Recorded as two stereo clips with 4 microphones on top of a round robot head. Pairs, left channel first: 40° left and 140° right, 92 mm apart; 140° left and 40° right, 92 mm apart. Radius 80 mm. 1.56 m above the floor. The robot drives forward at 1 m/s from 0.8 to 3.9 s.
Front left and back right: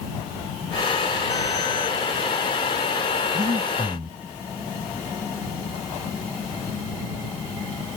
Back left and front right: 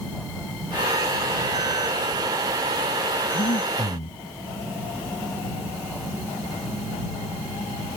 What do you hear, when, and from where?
3.3 s breathing: 165° left; by 4.2 s 170° left